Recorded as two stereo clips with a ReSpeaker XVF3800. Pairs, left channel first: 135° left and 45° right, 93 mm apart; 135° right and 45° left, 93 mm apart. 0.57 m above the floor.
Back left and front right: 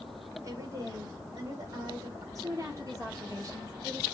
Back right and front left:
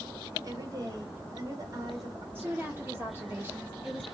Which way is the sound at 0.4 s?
Straight ahead.